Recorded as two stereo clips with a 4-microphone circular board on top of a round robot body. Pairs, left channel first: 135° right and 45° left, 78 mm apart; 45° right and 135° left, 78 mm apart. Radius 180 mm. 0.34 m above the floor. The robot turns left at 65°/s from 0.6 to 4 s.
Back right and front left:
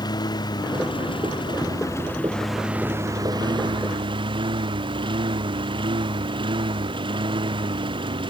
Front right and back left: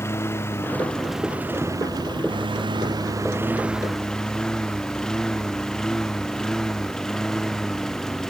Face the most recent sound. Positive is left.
turn(degrees=40)